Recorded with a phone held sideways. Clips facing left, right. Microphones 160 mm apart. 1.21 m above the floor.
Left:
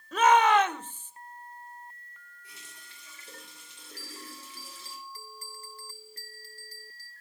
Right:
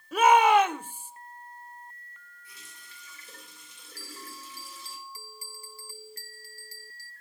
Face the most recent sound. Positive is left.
turn(degrees=-10)  # may be behind; listen again after turning